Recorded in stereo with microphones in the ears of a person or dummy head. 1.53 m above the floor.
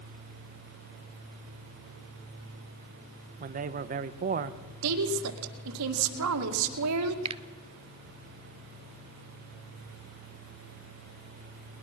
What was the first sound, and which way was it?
A man speaking, 50° right (ahead or behind).